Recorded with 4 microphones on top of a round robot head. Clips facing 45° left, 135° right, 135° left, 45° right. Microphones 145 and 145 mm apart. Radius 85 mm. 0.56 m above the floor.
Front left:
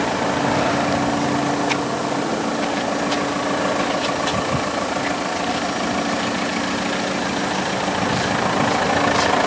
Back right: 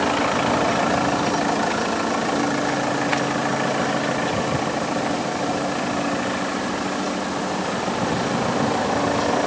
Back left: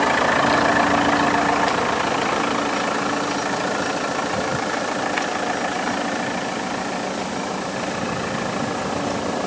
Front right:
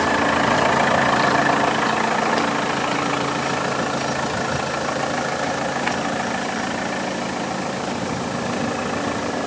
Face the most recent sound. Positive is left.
No sound to turn to.